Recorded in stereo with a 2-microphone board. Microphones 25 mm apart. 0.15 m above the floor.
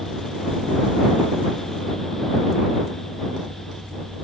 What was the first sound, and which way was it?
Only background noise.